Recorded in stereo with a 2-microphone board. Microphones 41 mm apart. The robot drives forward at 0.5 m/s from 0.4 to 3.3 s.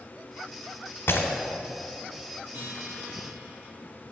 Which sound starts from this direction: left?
Breaking glass, at 1.1 s.